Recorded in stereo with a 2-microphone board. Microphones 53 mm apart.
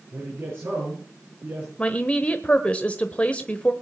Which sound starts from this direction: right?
A man speaking, at 0.1 s.